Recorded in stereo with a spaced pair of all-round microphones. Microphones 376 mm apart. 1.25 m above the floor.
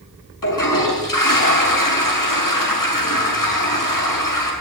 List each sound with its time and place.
0.4 s a toilet flushing: 55° left (ahead or behind), 7 m